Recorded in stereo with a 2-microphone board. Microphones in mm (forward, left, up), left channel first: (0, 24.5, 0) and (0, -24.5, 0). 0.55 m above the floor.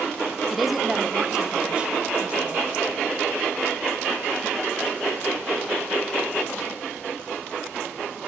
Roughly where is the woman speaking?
Centre.